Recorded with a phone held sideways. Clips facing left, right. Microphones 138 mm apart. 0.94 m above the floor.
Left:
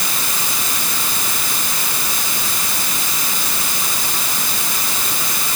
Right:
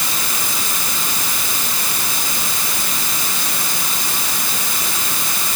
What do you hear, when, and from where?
Only background noise.